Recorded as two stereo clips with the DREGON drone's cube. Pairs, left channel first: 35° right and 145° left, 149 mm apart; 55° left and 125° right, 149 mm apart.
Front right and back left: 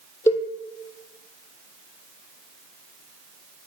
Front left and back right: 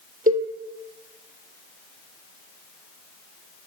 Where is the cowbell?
105° right, 0.9 m.